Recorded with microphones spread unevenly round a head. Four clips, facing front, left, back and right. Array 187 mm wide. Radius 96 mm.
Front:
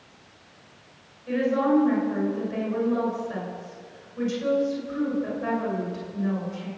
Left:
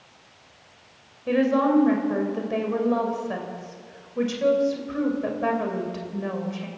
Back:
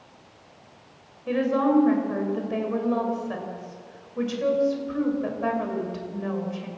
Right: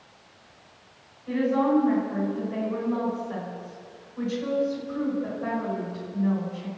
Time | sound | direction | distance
1.3 | a woman speaking | 105° left | 6 m